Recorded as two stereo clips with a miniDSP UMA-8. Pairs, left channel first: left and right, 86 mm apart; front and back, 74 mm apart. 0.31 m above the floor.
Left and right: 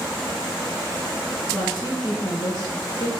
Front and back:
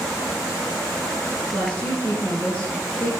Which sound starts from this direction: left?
A woman speaking, at 1.5 s.